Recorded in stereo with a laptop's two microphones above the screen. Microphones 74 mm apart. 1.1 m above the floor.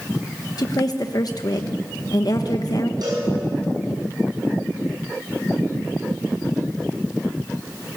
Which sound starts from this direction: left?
A woman speaking, at 0.6 s.